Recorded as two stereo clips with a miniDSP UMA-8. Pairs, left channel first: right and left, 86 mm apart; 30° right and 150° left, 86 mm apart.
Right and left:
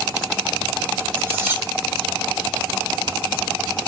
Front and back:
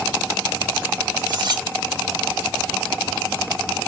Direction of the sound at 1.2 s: 150° left.